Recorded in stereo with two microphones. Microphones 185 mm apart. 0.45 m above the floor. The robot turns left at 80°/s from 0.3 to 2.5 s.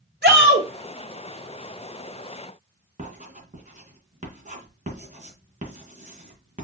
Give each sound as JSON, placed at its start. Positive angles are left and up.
{"t": 0.2, "sound": "a shout", "azimuth_deg": -95, "distance_m": 1.5}
{"t": 3.0, "sound": "writing", "side_deg": -45, "distance_m": 2.5}